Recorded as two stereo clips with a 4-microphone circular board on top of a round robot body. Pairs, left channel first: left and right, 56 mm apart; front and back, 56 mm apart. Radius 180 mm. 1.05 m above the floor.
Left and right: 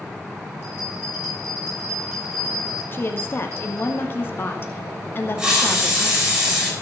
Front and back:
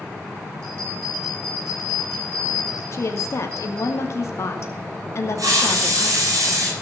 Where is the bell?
140° right, 8 m.